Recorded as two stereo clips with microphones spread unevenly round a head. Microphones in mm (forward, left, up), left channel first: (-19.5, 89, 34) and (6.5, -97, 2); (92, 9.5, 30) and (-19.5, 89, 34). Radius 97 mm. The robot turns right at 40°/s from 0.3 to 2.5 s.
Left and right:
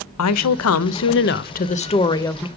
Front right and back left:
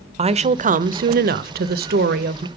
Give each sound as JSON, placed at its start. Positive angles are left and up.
{"t": 0.2, "sound": "a woman speaking", "azimuth_deg": 95, "distance_m": 0.6}